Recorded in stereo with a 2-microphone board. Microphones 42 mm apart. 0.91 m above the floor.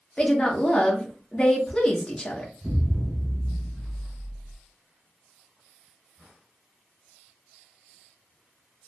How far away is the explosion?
About 0.6 m.